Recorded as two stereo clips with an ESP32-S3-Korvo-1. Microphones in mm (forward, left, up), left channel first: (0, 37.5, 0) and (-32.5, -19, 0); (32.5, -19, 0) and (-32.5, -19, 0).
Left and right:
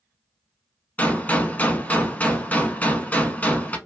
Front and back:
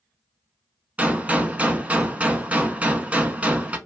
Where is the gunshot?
120° left, 0.5 m.